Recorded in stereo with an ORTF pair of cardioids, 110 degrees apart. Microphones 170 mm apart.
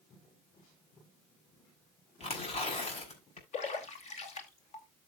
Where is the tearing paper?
40° left, 6 m.